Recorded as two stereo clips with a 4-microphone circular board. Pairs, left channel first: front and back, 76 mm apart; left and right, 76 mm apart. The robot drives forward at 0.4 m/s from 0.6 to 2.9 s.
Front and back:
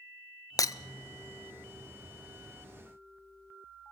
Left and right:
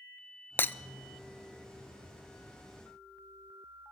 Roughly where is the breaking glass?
Ahead left.